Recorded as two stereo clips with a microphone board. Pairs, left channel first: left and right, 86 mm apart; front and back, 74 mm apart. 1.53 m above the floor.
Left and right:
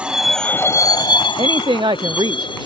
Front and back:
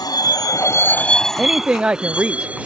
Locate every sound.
0.0 s a vehicle: 15° right; by 2.7 s 110° left
1.4 s a woman speaking: 105° right